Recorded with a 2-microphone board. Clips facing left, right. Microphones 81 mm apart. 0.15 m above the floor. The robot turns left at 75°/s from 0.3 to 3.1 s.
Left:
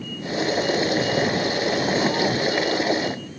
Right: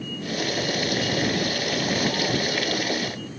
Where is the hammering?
No hammering in this recording.